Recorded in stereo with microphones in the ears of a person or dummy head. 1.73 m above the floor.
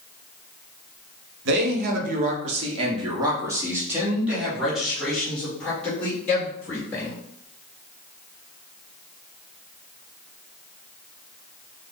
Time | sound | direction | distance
1.4 | a man speaking | 60° right (ahead or behind) | 1.3 m